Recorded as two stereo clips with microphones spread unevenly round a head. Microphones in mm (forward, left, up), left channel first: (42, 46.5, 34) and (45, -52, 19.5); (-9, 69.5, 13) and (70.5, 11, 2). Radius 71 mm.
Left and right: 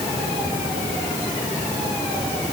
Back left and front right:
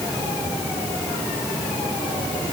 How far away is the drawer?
I don't hear a drawer.